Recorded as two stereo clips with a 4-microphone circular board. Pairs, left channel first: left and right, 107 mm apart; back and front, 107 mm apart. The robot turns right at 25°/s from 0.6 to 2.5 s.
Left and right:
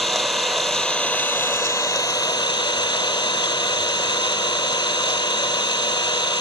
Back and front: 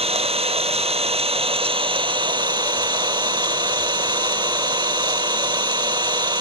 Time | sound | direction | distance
0.0 | an engine running | straight ahead | 0.8 m